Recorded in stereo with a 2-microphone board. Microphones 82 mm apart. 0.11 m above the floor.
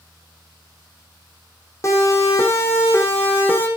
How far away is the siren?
About 6 m.